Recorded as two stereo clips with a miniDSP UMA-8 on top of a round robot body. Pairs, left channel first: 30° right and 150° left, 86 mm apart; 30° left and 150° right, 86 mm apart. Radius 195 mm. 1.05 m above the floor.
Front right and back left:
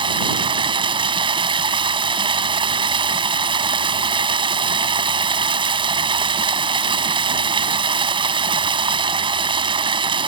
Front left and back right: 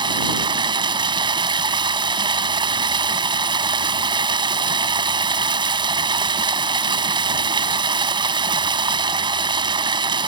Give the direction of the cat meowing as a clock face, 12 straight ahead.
I don't hear a cat meowing.